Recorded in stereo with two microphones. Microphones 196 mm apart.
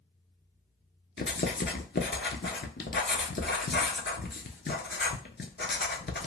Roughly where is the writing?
Left.